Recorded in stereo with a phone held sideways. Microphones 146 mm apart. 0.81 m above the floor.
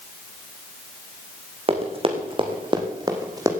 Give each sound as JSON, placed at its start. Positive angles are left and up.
{"t": 1.7, "sound": "running footsteps", "side_deg": -40, "distance_m": 3.0}